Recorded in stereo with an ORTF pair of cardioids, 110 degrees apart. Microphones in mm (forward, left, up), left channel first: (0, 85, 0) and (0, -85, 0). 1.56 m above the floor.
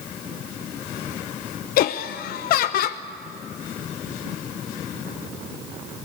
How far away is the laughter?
About 0.6 m.